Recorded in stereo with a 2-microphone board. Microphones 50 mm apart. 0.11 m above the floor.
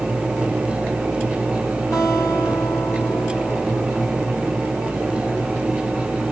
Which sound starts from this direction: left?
A guitar, at 1.9 s.